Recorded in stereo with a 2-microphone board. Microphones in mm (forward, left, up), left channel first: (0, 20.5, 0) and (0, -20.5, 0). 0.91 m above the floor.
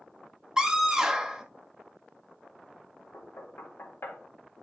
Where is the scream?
15° right (ahead or behind), 1.8 m.